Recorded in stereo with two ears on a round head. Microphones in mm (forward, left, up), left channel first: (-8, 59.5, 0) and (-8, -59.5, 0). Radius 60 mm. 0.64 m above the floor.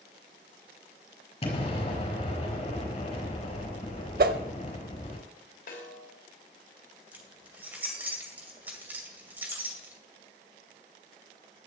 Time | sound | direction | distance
1.4 | an explosion | 45° left (ahead or behind) | 4 m
4.2 | a whoosh | 75° right (ahead or behind) | 0.8 m
5.7 | a snare drum | 70° left (ahead or behind) | 3 m
7.1 | keys jangling | 15° right (ahead or behind) | 2 m